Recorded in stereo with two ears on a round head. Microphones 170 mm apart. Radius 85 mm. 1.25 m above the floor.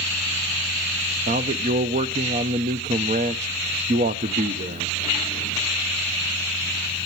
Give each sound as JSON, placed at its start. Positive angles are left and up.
{"t": 1.3, "sound": "a man speaking", "side_deg": -40, "distance_m": 0.7}